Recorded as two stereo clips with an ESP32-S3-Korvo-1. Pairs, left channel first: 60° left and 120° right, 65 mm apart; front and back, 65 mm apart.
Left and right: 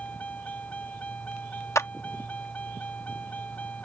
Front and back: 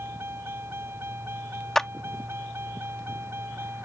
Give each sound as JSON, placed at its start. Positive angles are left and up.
{"t": 0.0, "sound": "a vehicle", "azimuth_deg": 125}
{"t": 1.8, "sound": "a clap", "azimuth_deg": 80}